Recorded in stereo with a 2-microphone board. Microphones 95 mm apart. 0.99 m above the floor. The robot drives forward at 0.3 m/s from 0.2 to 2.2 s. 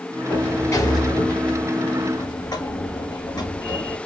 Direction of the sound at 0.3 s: 30° left (ahead or behind).